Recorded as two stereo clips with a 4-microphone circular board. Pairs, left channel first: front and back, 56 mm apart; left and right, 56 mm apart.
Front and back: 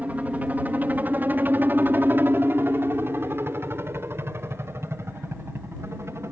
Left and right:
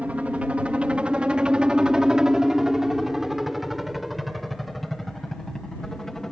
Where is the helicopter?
140° right; by 6.3 s 170° left.